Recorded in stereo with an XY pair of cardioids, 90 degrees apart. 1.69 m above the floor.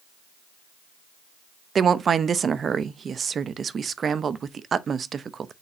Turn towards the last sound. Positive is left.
turn(degrees=-50)